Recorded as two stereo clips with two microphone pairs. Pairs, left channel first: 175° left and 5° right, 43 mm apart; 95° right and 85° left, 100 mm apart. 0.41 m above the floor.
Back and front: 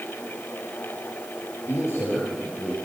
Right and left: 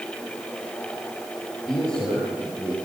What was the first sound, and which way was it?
A man speaking, straight behind.